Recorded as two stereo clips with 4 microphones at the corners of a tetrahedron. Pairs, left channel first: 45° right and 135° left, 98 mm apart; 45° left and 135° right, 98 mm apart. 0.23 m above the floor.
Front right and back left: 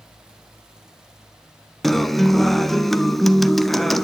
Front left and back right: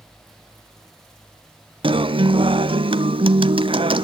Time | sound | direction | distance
1.8 | a guitar | 135° right | 0.7 m